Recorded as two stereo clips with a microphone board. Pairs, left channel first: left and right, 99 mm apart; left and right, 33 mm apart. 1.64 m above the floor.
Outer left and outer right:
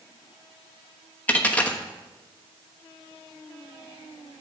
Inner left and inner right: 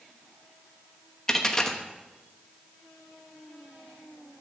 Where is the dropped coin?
15° left (ahead or behind), 1.0 m.